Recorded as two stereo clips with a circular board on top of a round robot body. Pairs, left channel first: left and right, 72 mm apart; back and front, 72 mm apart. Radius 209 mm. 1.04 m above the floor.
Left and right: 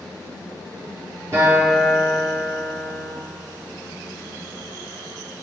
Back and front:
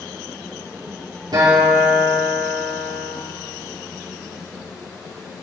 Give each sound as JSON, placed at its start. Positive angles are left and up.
{"t": 1.3, "sound": "a guitar", "azimuth_deg": -35, "distance_m": 4.5}